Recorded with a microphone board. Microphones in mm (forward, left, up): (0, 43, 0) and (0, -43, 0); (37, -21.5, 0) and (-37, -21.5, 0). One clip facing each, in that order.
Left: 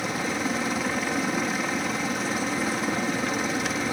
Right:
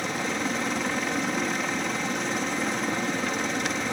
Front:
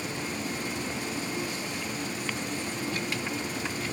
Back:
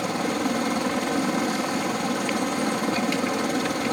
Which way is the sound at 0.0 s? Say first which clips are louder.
Left 1 dB, back 9 dB; 175° left.